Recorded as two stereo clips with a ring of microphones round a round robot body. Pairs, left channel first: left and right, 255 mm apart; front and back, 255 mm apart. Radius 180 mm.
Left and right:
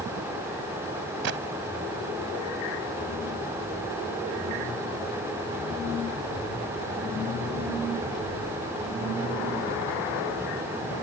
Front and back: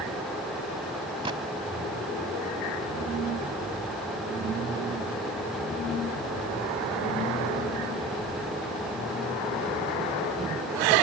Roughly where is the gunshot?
Right.